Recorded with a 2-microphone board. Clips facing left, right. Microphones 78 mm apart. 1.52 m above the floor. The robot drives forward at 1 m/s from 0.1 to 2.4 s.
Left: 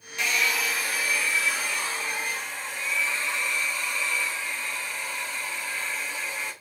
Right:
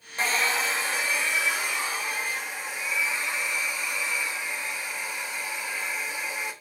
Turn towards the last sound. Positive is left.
turn(degrees=-10)  # may be behind; listen again after turning